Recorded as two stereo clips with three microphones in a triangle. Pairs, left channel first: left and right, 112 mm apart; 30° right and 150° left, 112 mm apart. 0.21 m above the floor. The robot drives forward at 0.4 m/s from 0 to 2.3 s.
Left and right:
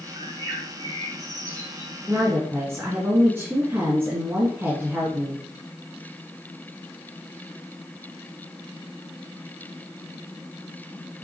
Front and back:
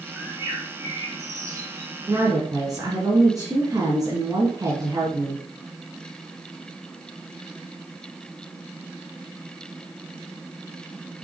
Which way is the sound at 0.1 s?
140° right.